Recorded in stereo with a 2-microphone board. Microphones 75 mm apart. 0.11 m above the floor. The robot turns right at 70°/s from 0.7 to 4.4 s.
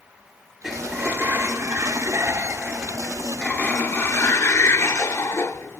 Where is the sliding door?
170° right, 1.3 m; by 5.8 s 90° left, 1.3 m.